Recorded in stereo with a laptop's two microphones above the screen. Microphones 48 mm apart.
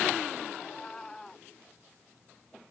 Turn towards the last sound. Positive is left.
turn(degrees=10)  # may be behind; listen again after turning